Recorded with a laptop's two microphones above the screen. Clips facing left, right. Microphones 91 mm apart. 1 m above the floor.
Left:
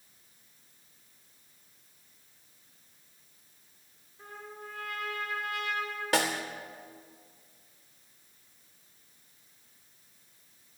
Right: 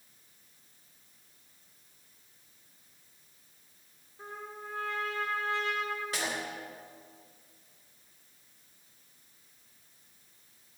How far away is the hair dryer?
I don't hear a hair dryer.